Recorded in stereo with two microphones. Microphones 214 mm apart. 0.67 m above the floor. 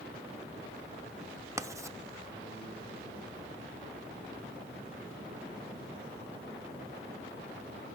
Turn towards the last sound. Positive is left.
turn(degrees=-15)  # may be behind; listen again after turning